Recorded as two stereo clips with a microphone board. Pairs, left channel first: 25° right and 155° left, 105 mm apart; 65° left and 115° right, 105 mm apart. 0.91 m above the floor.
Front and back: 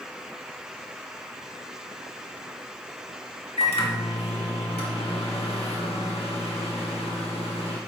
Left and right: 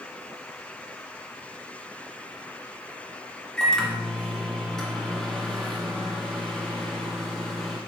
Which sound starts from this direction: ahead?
A microwave, at 3.6 s.